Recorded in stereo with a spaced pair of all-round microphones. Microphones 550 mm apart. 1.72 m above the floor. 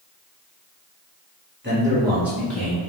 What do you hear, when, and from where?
1.6 s a man speaking: 20° right (ahead or behind), 1.4 m; by 2.8 s 5° left (ahead or behind), 2.5 m